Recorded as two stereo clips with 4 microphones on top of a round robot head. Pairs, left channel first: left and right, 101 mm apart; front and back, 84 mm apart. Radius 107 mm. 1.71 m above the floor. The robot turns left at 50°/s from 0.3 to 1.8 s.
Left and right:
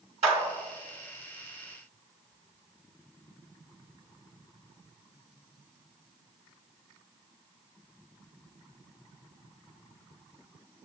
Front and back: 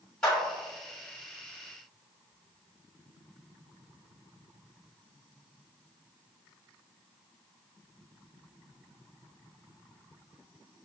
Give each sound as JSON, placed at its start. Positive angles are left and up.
{"t": 0.2, "sound": "a clap", "azimuth_deg": -85, "distance_m": 1.3}